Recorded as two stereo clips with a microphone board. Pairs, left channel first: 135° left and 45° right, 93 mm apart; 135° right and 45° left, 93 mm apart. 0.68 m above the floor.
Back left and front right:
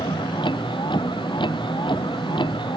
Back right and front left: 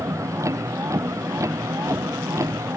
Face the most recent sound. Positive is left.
turn(degrees=100)